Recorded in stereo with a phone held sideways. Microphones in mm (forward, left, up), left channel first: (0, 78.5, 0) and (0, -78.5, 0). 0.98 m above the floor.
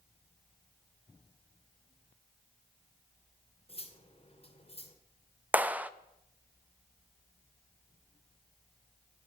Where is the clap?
10° right (ahead or behind), 0.6 m.